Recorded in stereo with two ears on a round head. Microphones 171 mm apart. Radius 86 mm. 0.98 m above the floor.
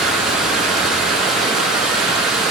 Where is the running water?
Centre (ahead or behind), 0.8 m.